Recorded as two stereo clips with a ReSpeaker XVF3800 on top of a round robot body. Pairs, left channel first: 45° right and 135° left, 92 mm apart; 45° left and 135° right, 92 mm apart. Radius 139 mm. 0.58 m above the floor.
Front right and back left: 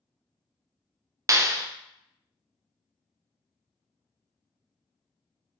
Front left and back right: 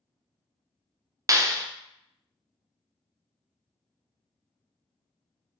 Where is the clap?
Straight behind, 0.5 m.